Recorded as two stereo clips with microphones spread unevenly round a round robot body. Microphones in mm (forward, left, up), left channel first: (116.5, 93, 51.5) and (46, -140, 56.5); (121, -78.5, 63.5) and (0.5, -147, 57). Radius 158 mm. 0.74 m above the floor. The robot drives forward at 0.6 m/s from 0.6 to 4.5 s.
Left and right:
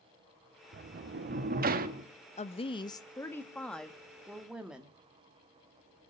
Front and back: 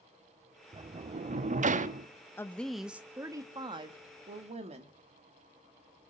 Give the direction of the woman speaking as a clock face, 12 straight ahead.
9 o'clock.